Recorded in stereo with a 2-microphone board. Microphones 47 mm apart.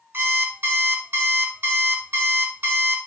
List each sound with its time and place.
0.1 s an alarm clock: 55° right (ahead or behind), 1.1 m